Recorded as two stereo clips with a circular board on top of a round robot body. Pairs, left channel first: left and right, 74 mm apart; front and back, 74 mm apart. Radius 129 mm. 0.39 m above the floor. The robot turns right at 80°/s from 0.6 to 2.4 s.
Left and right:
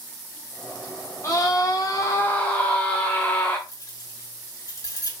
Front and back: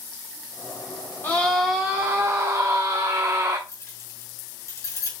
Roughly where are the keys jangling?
Ahead left.